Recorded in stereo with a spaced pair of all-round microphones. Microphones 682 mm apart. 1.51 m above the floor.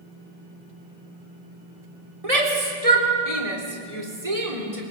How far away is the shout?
About 4 m.